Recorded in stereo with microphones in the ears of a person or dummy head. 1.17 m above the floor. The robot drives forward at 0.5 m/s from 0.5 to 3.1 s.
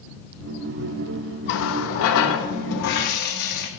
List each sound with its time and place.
1.5 s a running tap: 65° left (ahead or behind), 0.8 m; by 3.7 s 55° left (ahead or behind), 0.9 m